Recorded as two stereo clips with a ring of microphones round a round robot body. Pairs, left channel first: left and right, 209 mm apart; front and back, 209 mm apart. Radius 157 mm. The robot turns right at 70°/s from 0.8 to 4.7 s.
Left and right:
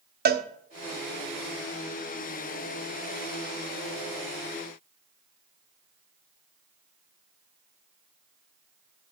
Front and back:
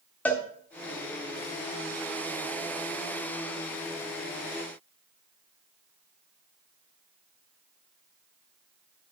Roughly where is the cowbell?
Right.